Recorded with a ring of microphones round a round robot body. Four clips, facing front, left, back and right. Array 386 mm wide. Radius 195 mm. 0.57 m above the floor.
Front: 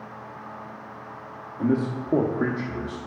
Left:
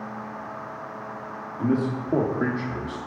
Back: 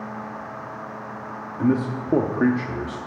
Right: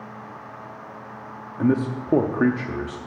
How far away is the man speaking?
About 0.9 m.